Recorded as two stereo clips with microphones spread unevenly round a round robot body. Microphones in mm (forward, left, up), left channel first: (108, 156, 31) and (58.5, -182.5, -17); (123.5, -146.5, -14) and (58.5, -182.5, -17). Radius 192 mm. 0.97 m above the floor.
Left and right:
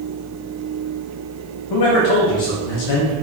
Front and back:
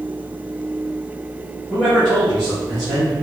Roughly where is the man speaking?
Left.